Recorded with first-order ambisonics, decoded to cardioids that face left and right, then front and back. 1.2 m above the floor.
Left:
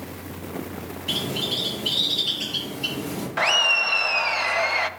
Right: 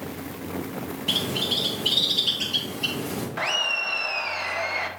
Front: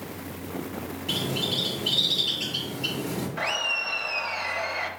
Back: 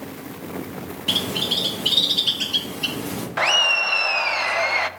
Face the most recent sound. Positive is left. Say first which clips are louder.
# left 6 dB, back 9 dB
turn(degrees=155)